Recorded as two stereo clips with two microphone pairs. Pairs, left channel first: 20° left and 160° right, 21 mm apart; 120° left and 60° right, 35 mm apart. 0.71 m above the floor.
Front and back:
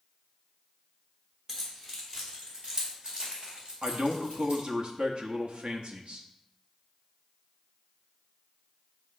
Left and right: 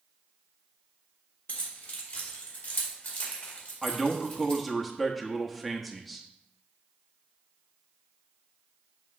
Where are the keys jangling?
130° left, 2 m; by 4.6 s 175° left, 2 m.